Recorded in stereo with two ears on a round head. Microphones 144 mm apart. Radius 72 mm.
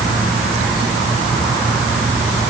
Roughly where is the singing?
No singing in this recording.